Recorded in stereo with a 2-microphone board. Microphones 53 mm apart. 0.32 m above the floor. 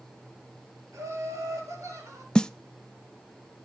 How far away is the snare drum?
About 0.5 m.